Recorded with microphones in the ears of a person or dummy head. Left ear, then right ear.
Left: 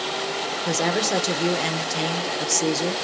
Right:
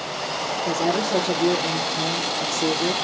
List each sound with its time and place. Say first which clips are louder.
0.7 s a woman speaking: even; 50° left (ahead or behind), 0.7 m